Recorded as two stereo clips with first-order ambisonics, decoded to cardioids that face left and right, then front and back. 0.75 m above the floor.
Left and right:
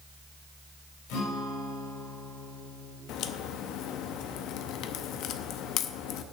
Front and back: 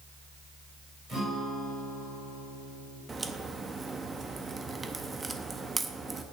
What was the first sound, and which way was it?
A guitar, 105° left.